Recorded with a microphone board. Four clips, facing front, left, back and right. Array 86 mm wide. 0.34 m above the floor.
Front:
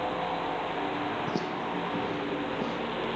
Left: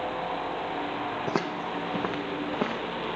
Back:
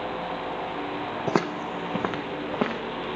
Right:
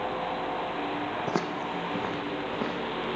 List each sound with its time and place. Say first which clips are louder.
1.3 s footsteps: left 1 dB, back 5 dB; 175° left, 0.7 m; by 2.8 s 165° left, 1.5 m